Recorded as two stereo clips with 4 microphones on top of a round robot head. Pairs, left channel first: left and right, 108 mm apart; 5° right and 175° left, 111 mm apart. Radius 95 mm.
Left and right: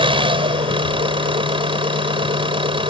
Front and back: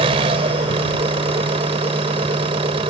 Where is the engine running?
130° right.